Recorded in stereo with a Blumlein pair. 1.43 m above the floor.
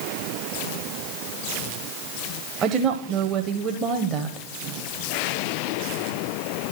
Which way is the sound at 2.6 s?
30° right.